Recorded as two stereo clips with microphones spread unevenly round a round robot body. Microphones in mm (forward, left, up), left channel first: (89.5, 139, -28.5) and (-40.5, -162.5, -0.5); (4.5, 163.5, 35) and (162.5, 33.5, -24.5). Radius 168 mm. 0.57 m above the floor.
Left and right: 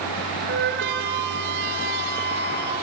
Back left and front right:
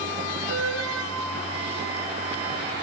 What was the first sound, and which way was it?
A flute, 55° right.